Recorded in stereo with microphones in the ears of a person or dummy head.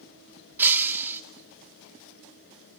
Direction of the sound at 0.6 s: 5° right (ahead or behind).